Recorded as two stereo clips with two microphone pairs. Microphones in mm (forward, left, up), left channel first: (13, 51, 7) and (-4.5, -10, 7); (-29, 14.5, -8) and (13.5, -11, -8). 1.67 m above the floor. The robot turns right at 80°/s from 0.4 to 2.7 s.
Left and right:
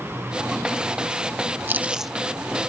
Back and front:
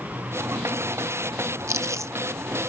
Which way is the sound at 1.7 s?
50° right.